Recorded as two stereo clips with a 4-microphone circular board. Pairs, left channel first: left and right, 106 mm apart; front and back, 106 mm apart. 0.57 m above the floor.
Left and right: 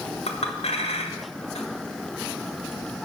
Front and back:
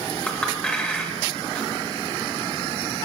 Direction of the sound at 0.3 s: 80° left.